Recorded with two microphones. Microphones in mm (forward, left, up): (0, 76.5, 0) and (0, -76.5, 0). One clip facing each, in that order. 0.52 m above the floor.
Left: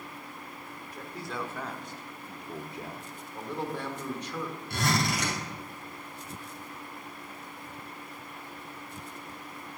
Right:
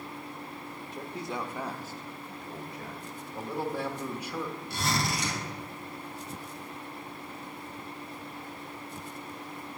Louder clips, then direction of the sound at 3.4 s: Right 2 dB; 10° right (ahead or behind).